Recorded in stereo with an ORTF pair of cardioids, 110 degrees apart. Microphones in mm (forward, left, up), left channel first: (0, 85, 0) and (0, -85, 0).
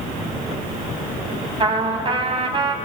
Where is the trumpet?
30° right, 4 m.